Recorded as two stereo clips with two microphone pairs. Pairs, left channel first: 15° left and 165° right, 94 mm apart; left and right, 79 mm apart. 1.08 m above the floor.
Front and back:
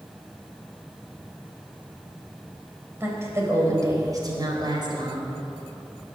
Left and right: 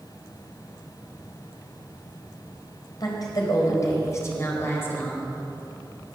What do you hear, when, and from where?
3.0 s a woman speaking: 130° left, 4.5 m; by 5.4 s 165° left, 4 m